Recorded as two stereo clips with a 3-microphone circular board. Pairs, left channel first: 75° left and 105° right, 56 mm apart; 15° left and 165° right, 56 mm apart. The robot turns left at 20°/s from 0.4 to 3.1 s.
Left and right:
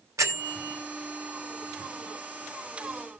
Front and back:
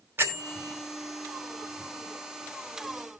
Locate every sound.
0.2 s a bell: 125° right, 2.5 m; by 0.8 s 130° right, 2.5 m